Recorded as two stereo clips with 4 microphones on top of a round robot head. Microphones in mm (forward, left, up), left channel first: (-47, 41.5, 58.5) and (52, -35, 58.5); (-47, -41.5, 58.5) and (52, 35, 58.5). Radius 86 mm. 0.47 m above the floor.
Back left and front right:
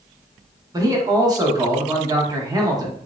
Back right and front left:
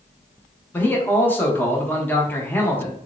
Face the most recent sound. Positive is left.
turn(degrees=-75)